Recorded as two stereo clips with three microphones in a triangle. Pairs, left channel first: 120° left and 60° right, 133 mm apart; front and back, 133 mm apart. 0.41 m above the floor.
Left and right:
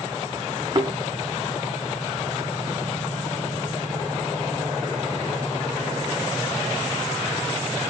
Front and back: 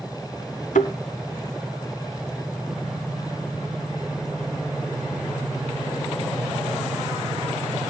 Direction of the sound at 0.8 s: Straight ahead.